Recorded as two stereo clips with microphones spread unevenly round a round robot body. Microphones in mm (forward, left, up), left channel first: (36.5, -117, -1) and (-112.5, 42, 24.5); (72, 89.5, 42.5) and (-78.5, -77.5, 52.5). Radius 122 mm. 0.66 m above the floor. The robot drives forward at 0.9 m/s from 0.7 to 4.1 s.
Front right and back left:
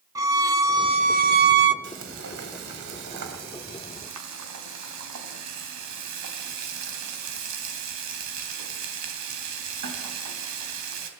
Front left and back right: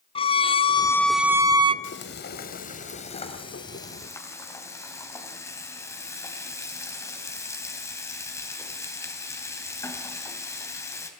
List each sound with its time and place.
0.1 s a violin: 60° left, 0.7 m; by 1.7 s 160° left, 1.1 m
1.8 s frying: 85° left, 2.5 m; by 11.1 s 125° left, 3 m